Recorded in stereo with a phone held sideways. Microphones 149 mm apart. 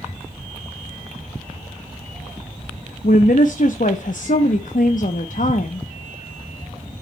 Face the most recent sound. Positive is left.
turn(degrees=60)  # may be behind; listen again after turning